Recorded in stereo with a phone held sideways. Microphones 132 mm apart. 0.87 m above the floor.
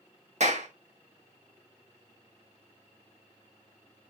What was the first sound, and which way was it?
A clap, 65° right (ahead or behind).